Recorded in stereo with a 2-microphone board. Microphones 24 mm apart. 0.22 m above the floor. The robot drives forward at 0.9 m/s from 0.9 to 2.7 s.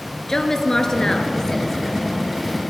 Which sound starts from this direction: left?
A woman speaking, at 0.3 s.